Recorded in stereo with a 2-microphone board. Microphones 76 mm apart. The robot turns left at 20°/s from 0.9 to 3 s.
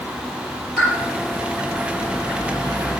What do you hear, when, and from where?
0.8 s a pop: 5° left (ahead or behind), 6 m